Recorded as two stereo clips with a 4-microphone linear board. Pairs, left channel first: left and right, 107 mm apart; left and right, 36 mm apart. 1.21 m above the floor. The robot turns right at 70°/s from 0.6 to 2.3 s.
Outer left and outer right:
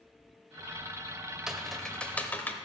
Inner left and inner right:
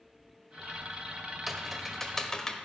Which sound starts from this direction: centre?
Typing on a keyboard, at 1.5 s.